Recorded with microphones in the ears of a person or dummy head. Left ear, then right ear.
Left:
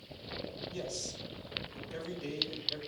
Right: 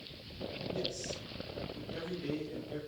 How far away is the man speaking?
About 1.7 m.